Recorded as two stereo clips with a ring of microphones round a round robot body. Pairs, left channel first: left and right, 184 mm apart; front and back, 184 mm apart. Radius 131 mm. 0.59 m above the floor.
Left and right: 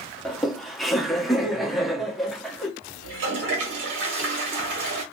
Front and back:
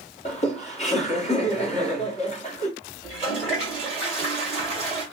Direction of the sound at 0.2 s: Straight ahead.